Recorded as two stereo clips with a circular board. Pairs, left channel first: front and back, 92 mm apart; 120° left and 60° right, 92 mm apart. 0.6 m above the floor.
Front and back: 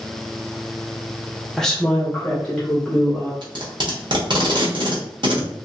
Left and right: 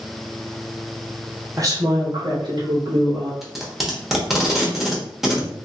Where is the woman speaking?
85° right, 0.8 m; by 3.3 s 70° right, 1.7 m.